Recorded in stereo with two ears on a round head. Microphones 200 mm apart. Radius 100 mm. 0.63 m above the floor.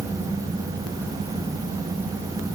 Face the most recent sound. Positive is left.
No sound to turn to.